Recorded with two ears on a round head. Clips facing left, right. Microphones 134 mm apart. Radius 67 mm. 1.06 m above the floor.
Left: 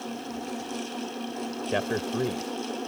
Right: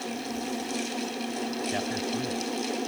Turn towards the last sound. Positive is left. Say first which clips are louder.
# left 2 dB
turn(degrees=80)